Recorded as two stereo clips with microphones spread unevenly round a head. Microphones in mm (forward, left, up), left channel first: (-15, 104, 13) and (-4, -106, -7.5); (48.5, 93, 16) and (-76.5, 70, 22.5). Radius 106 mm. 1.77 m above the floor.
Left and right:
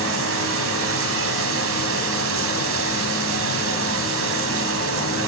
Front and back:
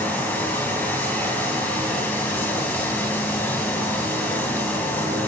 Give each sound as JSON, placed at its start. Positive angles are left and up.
{"t": 0.0, "sound": "running water", "azimuth_deg": -70, "distance_m": 2.5}